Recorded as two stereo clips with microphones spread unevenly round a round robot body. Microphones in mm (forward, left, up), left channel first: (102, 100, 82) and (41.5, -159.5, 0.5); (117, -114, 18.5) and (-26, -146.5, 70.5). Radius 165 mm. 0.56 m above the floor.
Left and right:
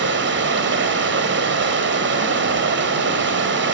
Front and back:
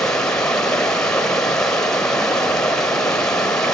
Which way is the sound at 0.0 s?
65° right.